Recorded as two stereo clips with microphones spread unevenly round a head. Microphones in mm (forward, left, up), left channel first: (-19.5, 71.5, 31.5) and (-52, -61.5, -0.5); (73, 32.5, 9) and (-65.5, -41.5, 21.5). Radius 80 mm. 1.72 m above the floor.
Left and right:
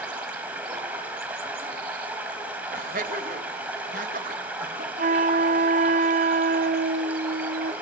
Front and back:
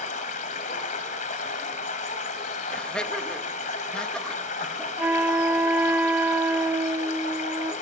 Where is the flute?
85° right, 0.6 m.